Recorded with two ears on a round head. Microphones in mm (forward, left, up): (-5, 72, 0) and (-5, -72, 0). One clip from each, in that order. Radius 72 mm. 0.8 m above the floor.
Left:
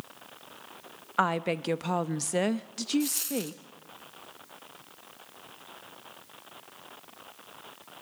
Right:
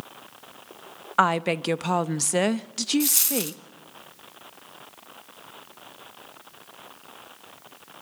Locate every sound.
1.2 s a woman speaking: 20° right (ahead or behind), 0.5 m
3.0 s a dropped coin: 30° right (ahead or behind), 0.8 m